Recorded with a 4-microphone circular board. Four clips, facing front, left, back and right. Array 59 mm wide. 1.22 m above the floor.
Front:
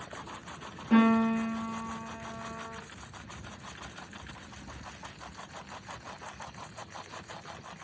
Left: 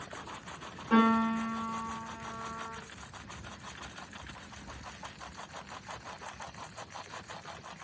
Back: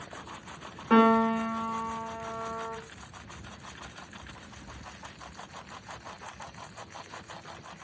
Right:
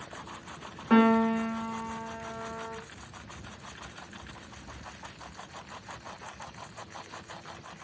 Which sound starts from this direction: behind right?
A piano, at 0.9 s.